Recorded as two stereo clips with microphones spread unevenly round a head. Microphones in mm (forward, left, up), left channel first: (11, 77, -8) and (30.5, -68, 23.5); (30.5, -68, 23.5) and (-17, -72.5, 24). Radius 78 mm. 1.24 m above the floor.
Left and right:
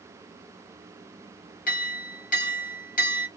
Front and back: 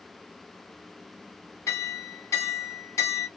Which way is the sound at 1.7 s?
65° left.